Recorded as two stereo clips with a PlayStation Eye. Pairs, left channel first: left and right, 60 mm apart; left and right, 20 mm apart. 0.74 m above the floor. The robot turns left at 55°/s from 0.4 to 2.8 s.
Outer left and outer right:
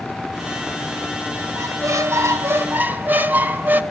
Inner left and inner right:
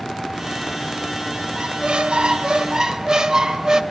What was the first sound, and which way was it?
A squeak, 75° right.